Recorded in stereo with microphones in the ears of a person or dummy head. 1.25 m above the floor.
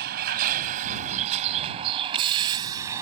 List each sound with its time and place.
0.0 s a vehicle: 50° right (ahead or behind); by 3.0 s 15° right (ahead or behind)